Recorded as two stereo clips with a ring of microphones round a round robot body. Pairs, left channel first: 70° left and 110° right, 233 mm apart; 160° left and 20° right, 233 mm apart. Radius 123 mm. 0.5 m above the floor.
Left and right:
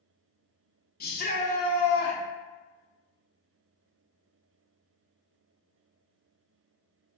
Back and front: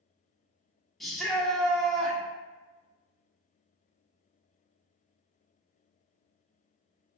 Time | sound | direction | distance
1.0 | a shout | 70° left | 1.0 m